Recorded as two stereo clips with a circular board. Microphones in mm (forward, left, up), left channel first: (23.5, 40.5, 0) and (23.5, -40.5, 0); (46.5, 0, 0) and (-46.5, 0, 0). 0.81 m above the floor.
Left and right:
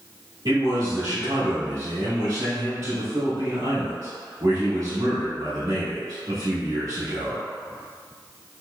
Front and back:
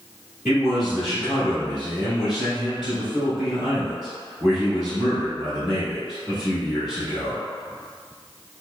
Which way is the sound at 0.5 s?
95° right.